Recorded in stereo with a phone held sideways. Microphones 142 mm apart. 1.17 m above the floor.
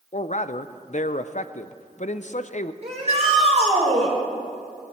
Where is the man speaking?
55° left (ahead or behind), 0.5 m.